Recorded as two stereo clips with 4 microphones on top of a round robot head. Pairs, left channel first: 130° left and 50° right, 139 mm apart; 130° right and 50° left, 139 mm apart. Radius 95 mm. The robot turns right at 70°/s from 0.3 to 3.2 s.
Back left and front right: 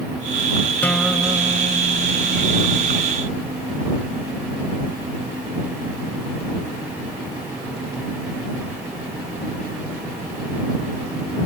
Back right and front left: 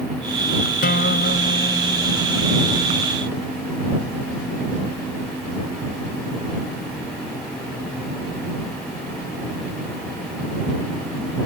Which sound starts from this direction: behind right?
A guitar, at 0.8 s.